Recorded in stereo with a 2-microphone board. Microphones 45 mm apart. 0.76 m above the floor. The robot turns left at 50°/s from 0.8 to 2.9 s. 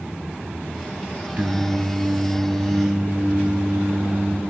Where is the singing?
60° right, 0.8 m; by 4.4 s 135° right, 0.8 m.